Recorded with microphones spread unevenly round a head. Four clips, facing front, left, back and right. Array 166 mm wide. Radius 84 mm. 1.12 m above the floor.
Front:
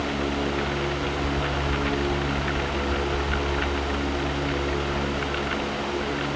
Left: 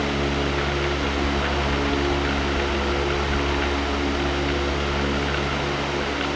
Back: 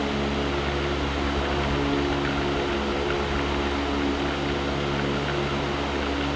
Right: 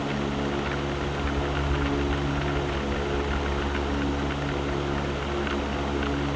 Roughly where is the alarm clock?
No alarm clock in this recording.